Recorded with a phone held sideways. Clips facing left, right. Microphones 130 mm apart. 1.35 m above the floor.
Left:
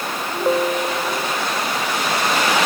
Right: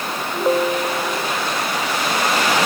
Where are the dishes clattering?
No dishes clattering in this recording.